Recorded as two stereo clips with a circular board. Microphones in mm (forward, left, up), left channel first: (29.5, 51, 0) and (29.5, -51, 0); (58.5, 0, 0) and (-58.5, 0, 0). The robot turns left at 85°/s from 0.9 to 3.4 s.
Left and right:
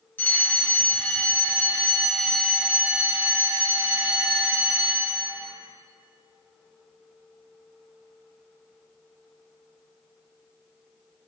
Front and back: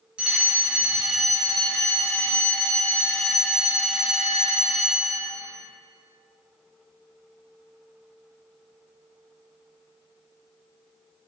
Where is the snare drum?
I don't hear a snare drum.